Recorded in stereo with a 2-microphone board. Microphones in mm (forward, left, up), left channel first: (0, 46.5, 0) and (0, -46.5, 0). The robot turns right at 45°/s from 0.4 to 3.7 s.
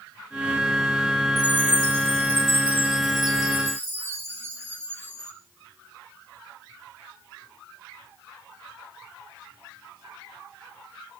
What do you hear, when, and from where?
1.4 s a chime: 130° right, 4.5 m; by 5.3 s 25° right, 4.5 m